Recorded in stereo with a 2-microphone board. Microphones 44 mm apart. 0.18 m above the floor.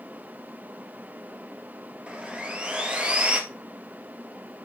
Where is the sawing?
25° right (ahead or behind), 2 m.